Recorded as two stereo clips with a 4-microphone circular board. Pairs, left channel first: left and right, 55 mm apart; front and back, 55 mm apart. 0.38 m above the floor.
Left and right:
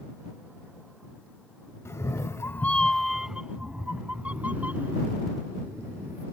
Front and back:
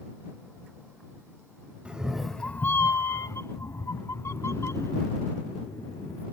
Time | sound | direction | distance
1.9 | a cat meowing | 110° left | ?